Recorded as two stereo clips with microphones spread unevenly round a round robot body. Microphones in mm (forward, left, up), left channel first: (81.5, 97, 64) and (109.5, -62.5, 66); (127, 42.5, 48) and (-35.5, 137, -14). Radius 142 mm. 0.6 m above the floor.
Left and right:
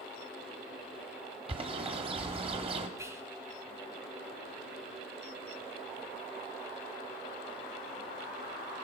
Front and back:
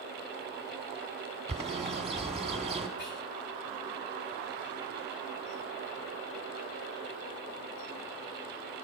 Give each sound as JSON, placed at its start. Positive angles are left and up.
{"t": 1.5, "sound": "a bird", "azimuth_deg": -135, "distance_m": 1.5}
{"t": 3.0, "sound": "whispering", "azimuth_deg": -10, "distance_m": 6.0}